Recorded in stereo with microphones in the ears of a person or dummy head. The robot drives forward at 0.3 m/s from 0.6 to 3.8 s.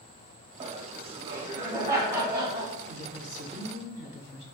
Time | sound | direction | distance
0.6 | laughter | 30° right (ahead or behind) | 0.6 m
2.9 | a woman speaking | 50° left (ahead or behind) | 1.1 m